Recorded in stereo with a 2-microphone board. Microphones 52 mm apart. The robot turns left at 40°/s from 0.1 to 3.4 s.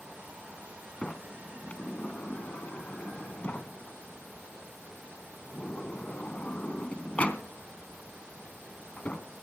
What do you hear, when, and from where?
1.0 s a sliding door: 15° left (ahead or behind), 0.8 m; by 9.3 s 25° left (ahead or behind), 0.8 m